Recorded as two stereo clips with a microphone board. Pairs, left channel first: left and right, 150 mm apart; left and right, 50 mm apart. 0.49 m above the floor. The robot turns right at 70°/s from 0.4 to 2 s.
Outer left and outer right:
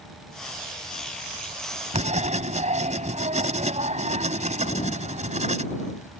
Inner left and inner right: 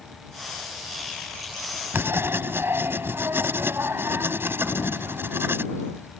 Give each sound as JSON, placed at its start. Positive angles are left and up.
{"t": 1.9, "sound": "writing", "side_deg": -45}
{"t": 4.6, "sound": "a sliding door", "side_deg": 55}